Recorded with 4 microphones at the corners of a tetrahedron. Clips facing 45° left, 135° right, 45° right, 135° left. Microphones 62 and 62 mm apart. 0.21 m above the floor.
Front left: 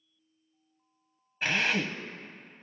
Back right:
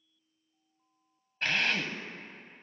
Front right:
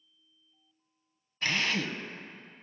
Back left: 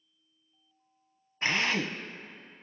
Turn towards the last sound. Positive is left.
turn(degrees=120)